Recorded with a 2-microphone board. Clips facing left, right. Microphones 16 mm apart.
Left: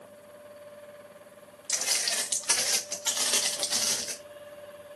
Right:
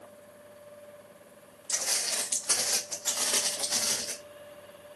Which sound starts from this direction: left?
Footsteps, at 1.7 s.